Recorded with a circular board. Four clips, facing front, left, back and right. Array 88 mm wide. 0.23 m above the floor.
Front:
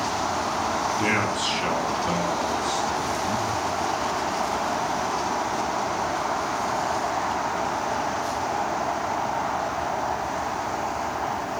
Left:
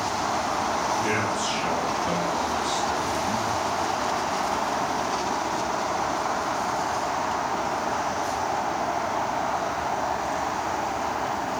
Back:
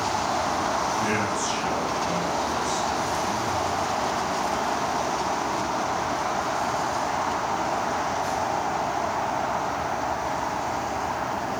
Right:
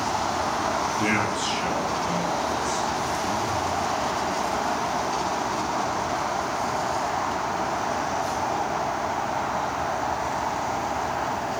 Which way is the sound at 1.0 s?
35° right.